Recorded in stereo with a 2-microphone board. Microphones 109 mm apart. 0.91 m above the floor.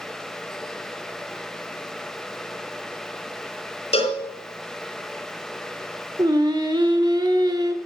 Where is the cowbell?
65° left (ahead or behind), 3 m.